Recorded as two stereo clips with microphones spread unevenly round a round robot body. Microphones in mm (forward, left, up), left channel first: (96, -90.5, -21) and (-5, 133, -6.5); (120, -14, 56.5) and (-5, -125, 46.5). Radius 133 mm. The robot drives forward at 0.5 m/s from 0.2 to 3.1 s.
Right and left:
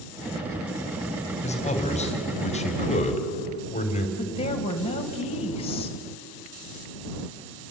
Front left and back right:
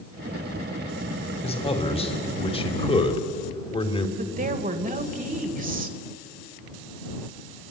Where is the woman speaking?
130° right, 2.5 m.